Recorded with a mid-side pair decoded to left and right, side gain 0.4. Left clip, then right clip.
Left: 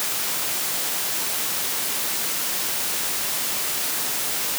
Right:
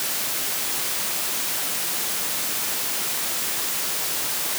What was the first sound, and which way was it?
Only background noise.